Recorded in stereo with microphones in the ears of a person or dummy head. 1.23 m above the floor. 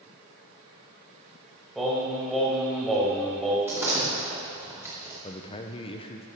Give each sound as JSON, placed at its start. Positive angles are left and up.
{"t": 1.8, "sound": "singing", "side_deg": 0, "distance_m": 2.0}
{"t": 3.7, "sound": "a door slam", "side_deg": -15, "distance_m": 2.5}
{"t": 5.2, "sound": "a man speaking", "side_deg": 25, "distance_m": 0.7}